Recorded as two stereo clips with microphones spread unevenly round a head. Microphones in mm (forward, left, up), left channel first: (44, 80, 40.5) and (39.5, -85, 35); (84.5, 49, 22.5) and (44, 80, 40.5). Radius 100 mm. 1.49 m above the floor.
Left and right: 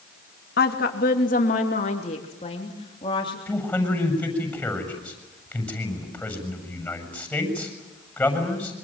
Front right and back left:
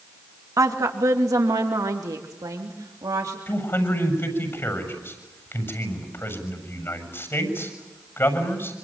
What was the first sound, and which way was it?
A woman speaking, 125° left.